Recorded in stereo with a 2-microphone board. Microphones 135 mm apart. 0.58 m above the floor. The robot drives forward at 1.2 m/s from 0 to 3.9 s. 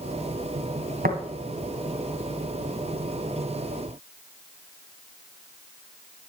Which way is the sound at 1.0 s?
80° right.